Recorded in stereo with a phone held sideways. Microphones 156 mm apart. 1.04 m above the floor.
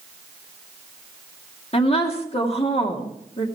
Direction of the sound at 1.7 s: 40° left (ahead or behind).